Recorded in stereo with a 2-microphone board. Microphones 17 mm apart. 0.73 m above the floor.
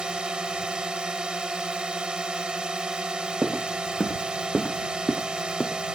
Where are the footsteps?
15° left (ahead or behind); by 6.0 s 25° right (ahead or behind).